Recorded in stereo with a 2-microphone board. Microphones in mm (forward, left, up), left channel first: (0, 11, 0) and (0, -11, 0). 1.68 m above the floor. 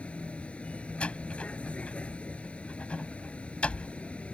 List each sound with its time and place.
0.0 s a vehicle: 70° left (ahead or behind)
1.0 s a door slam: 65° left (ahead or behind)